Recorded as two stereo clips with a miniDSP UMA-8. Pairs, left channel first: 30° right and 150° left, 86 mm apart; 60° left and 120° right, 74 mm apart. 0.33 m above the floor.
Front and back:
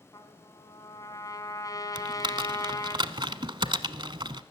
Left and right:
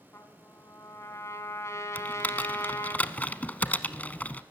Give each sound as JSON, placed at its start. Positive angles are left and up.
{"t": 0.1, "sound": "a trumpet", "azimuth_deg": 15, "distance_m": 2.0}
{"t": 1.9, "sound": "typing on a keyboard", "azimuth_deg": 125, "distance_m": 0.8}